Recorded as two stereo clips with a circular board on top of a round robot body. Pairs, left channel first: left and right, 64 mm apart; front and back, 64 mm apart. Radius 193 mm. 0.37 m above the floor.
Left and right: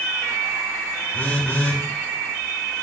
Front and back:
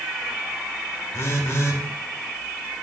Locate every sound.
1.1 s a phone buzzing: 35° left, 0.9 m